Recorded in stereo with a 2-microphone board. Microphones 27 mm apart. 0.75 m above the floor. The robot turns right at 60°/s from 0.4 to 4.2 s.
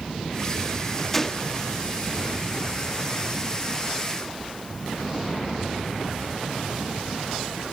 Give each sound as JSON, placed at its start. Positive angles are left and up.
{"t": 1.1, "sound": "a gunshot", "azimuth_deg": 10, "distance_m": 1.6}